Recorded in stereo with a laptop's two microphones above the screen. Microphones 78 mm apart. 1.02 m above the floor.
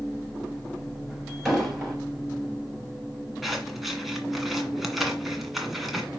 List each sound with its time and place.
0.0 s a machine running: centre (ahead or behind), 1.6 m
1.4 s an explosion: centre (ahead or behind), 5 m
3.4 s scissors: centre (ahead or behind), 1.7 m